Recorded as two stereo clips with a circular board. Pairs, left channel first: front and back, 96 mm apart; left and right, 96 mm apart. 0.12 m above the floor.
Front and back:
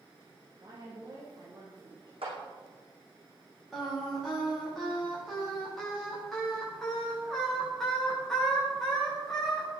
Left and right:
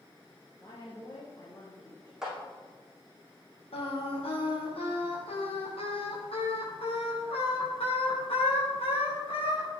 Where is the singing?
85° left, 8.5 m.